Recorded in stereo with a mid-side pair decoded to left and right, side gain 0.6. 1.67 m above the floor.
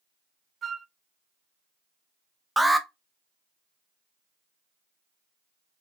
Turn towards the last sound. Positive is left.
turn(degrees=-5)